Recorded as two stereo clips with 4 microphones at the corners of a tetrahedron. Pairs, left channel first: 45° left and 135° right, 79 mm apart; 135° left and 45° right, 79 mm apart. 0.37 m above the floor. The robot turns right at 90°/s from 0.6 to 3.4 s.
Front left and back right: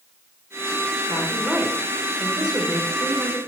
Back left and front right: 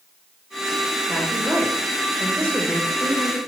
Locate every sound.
1.1 s a woman speaking: 110° right, 1.1 m; by 3.4 s 95° left, 1.1 m